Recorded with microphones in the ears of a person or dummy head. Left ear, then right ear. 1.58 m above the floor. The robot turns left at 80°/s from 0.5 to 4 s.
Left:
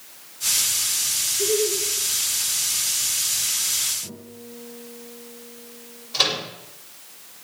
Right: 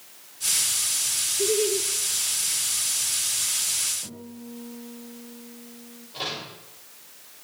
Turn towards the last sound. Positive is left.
turn(degrees=70)  # may be behind; listen again after turning